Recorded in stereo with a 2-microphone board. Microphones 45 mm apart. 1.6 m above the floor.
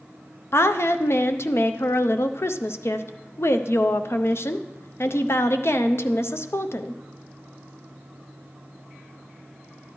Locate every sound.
0.5 s a woman speaking: 70° left (ahead or behind), 0.6 m